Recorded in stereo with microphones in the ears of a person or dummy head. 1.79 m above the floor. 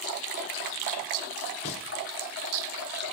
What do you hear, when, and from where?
1.6 s singing: 30° left (ahead or behind), 1.0 m